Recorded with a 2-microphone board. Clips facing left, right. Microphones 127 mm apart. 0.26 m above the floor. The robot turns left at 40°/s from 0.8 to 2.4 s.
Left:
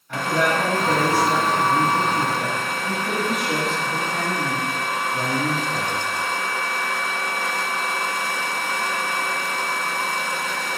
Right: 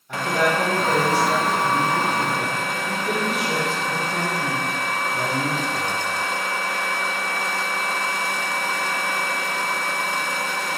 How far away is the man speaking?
About 1.4 m.